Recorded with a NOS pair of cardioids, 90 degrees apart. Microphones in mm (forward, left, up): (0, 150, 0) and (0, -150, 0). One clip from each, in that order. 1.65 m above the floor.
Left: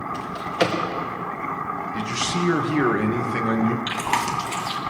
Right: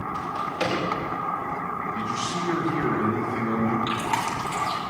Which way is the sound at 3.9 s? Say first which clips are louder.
Left 2 dB; 40° left.